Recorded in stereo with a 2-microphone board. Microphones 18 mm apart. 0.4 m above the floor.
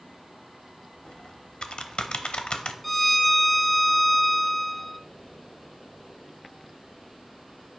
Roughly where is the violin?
Centre.